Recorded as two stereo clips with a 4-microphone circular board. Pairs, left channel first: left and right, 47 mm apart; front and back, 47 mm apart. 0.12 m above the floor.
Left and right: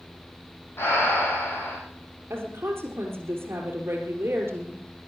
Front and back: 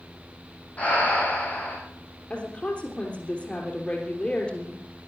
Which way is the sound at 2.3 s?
65° right.